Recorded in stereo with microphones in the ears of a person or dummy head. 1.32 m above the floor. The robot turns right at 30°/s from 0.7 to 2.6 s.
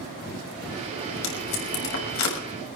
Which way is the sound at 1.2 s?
70° left (ahead or behind).